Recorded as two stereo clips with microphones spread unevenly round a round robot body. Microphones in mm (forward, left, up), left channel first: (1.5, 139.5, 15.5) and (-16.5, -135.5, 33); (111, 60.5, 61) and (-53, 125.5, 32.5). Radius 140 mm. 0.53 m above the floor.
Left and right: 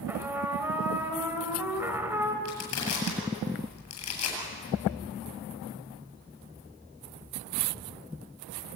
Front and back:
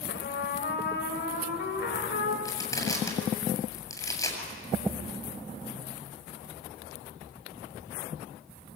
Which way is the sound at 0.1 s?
10° right.